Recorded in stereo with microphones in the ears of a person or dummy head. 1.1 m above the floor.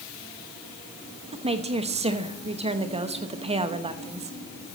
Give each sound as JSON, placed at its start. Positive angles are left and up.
{"t": 1.3, "sound": "a woman speaking", "side_deg": -30, "distance_m": 1.0}